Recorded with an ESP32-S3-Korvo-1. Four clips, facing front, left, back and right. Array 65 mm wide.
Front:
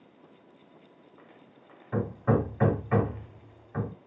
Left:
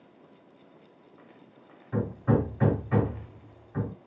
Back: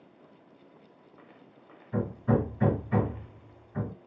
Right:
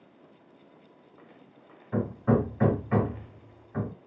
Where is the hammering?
15° right, 1.5 m.